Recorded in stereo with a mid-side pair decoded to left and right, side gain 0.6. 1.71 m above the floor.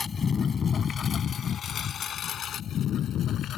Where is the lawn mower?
35° left; by 3.6 s 55° left.